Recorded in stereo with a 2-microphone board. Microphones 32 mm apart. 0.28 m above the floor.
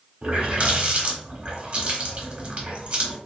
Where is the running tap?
45° right (ahead or behind), 1.0 m.